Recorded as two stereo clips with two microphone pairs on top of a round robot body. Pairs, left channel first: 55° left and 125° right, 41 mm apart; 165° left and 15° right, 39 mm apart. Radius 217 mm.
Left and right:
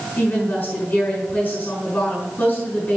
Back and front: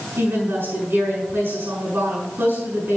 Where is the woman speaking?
10° left, 6 m.